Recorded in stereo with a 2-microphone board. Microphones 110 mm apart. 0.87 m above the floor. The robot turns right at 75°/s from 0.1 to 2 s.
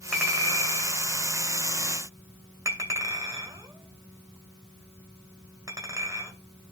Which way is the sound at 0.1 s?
10° right (ahead or behind).